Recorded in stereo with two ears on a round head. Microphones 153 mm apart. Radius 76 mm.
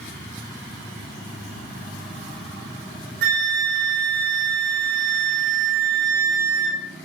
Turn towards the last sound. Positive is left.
turn(degrees=-75)  # may be behind; listen again after turning